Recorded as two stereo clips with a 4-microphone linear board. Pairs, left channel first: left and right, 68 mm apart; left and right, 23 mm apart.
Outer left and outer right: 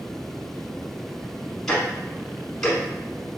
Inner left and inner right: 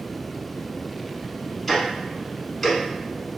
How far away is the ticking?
About 1.0 m.